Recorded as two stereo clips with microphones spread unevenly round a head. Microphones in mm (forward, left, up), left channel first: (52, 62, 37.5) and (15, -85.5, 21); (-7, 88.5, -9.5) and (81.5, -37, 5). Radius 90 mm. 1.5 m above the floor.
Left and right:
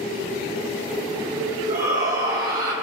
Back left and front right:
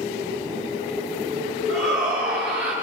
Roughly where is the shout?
Behind right.